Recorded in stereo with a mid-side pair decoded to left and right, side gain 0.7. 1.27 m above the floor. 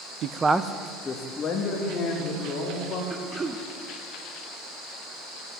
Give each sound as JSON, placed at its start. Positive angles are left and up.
{"t": 0.2, "sound": "a man speaking", "azimuth_deg": -55, "distance_m": 0.6}
{"t": 3.1, "sound": "throat clearing", "azimuth_deg": -20, "distance_m": 0.9}